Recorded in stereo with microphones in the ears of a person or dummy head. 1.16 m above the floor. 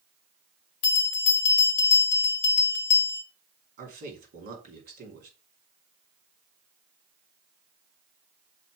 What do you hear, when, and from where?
0.8 s a bell: 50° left (ahead or behind), 1.2 m
3.8 s a man speaking: 45° right (ahead or behind), 3 m